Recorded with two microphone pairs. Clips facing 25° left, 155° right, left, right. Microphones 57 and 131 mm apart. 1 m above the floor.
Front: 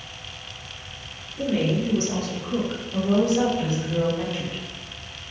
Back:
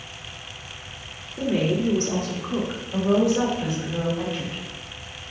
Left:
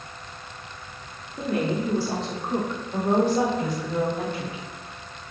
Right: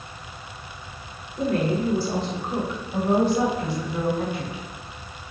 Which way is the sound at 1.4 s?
165° left.